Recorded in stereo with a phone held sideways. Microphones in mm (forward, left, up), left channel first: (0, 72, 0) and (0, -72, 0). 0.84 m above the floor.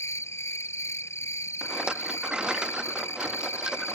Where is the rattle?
5° right (ahead or behind).